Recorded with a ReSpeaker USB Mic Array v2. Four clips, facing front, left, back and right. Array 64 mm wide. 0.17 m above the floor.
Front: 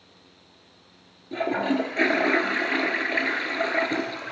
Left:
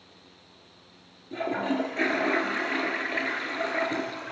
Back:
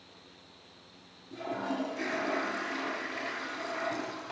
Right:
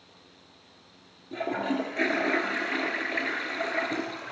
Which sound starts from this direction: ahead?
A toilet flushing, at 1.3 s.